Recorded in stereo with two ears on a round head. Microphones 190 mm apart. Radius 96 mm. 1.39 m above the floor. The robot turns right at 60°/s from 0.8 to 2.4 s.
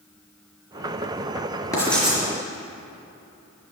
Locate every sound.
1.7 s writing: 15° left (ahead or behind), 4 m; by 2.2 s 10° right (ahead or behind), 4 m